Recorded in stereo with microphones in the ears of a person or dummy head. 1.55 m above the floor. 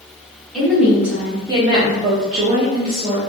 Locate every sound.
0.5 s a woman speaking: centre (ahead or behind), 1.0 m; by 3.2 s 35° right (ahead or behind), 0.8 m